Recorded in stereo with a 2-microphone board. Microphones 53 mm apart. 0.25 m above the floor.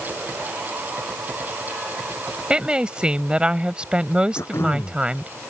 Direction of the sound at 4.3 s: 60° left (ahead or behind).